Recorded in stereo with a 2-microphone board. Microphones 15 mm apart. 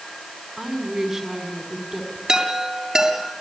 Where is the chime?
40° right (ahead or behind), 7 m.